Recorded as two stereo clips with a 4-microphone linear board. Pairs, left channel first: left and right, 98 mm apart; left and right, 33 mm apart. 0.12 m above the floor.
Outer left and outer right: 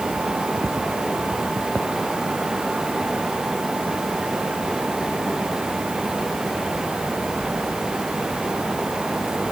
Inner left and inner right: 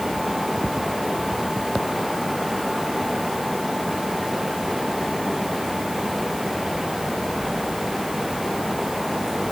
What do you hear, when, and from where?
Only background noise.